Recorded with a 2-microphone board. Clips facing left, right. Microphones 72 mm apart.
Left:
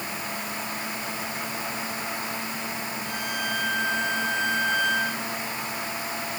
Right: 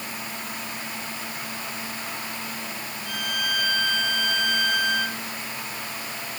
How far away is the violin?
About 7 m.